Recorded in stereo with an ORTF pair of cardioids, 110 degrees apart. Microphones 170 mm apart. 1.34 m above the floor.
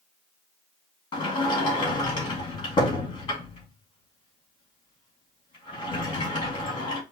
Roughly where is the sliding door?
Ahead left.